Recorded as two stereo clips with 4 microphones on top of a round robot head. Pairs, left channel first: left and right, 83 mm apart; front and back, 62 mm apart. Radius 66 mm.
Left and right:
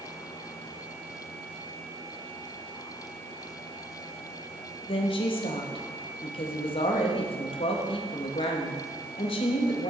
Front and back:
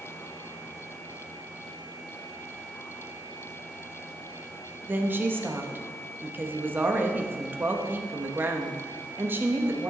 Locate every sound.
4.8 s a woman speaking: 125° left, 1.3 m